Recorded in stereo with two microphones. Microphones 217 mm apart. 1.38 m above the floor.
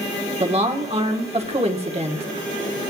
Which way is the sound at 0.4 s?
25° right (ahead or behind).